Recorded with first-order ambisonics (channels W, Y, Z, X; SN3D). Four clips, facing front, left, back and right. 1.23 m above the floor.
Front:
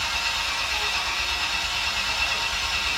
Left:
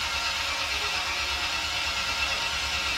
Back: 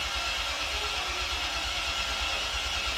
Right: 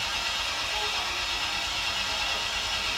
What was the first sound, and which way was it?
An engine running, 5° left.